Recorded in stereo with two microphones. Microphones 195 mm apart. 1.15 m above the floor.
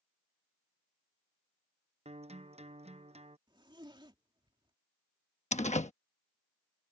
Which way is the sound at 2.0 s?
35° right (ahead or behind).